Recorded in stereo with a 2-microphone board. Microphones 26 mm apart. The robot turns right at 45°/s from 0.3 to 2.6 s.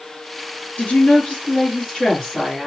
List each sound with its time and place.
0.8 s a woman speaking: 75° left, 2.5 m; by 2.7 s 155° left, 2.5 m